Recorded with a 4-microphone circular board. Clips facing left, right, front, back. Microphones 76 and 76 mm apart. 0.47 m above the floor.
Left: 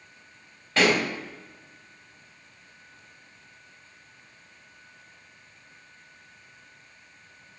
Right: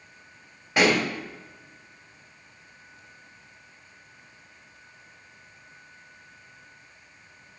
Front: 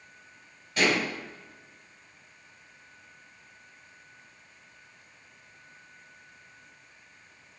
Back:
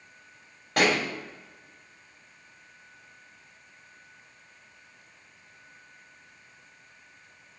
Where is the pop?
165° right, 2 m.